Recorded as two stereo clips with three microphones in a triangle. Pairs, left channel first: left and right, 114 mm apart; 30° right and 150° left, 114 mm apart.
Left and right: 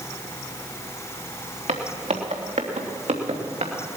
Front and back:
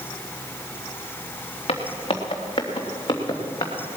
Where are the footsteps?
70° right, 2.5 m; by 3.7 s 85° right, 3.5 m.